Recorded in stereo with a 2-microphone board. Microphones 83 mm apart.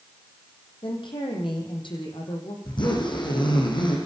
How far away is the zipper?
About 9 m.